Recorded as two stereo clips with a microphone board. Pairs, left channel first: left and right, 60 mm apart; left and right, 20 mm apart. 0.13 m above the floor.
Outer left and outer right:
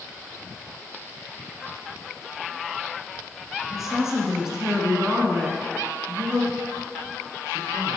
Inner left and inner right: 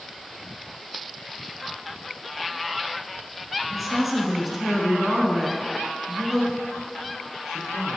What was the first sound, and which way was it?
A woman speaking, 5° right (ahead or behind).